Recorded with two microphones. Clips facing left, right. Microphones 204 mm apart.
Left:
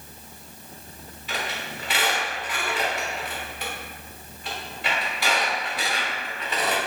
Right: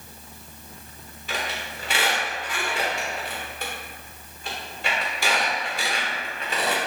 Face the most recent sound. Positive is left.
turn(degrees=-45)  # may be behind; listen again after turning